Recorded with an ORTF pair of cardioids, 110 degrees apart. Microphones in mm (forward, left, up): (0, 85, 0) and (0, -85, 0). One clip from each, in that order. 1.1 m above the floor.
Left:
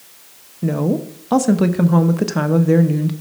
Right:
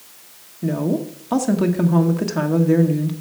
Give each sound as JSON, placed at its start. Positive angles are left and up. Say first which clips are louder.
{"t": 0.6, "sound": "a woman speaking", "louder": "left 2 dB", "azimuth_deg": 20, "distance_m": 1.0}